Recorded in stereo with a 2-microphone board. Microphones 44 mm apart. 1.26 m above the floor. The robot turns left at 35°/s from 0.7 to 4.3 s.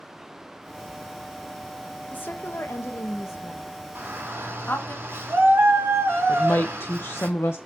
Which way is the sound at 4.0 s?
50° right (ahead or behind).